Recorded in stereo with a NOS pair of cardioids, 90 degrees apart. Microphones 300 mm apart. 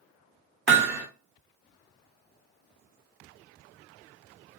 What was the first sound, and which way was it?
Hammering, 40° right.